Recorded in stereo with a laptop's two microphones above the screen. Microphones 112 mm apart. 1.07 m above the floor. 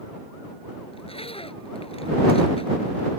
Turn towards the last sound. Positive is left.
turn(degrees=55)  # may be behind; listen again after turning